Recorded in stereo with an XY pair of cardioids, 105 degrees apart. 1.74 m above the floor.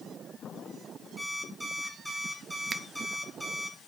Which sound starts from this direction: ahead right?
A finger snap, at 2.7 s.